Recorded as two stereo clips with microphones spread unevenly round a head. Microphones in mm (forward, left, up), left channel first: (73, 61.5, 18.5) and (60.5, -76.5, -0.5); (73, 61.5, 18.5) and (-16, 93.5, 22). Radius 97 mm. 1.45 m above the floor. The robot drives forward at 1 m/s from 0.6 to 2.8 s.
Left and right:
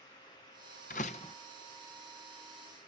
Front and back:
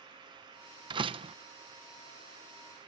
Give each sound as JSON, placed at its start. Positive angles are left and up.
{"t": 0.9, "sound": "a door slam", "azimuth_deg": 130}